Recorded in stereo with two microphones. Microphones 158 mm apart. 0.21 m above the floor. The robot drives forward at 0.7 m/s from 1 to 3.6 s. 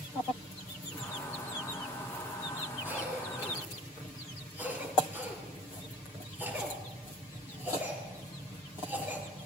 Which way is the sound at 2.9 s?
15° right (ahead or behind).